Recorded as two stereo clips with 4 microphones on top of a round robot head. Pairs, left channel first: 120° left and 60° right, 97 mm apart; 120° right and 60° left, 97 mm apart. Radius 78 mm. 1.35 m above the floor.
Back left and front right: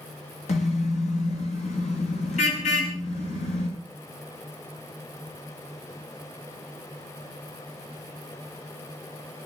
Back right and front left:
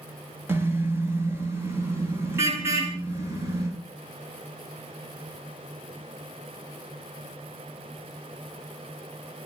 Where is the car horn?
125° left, 4 m.